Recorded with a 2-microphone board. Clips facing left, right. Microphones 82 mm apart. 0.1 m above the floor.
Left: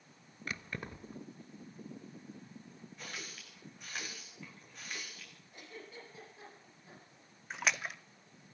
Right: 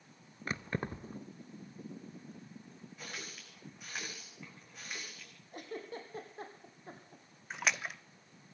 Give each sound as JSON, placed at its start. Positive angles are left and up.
{"t": 0.5, "sound": "keys jangling", "side_deg": -30, "distance_m": 1.0}
{"t": 3.0, "sound": "a running tap", "side_deg": -5, "distance_m": 8.5}
{"t": 5.5, "sound": "a giggle", "side_deg": -50, "distance_m": 4.5}
{"t": 7.5, "sound": "a splash", "side_deg": 0, "distance_m": 1.0}